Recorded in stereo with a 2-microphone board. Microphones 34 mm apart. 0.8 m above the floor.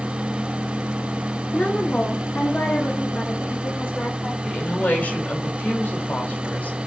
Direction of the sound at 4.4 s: 65° left (ahead or behind).